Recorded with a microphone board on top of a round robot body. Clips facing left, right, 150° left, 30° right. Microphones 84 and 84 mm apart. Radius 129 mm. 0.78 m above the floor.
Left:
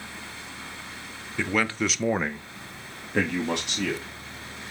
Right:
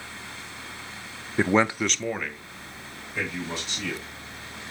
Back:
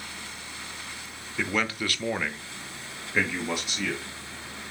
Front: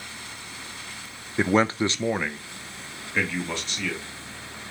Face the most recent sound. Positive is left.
turn(degrees=70)